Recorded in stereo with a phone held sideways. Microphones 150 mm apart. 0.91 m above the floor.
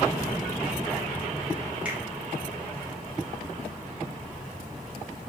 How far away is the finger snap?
About 1.7 m.